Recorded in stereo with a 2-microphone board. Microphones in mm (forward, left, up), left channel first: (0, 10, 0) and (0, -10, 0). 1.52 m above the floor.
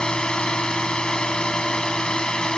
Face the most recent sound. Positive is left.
turn(degrees=40)  # may be behind; listen again after turning